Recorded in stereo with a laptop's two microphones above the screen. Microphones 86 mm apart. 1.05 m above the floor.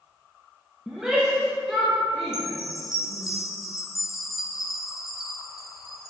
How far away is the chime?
About 2.5 m.